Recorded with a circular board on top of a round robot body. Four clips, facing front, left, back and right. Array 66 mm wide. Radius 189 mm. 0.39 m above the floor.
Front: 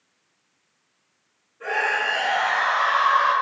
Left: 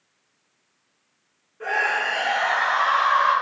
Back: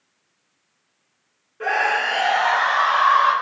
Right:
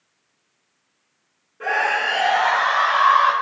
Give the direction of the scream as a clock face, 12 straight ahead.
5 o'clock.